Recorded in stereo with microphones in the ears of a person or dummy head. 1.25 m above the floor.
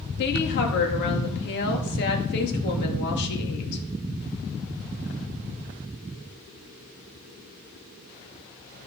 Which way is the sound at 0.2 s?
65° left (ahead or behind).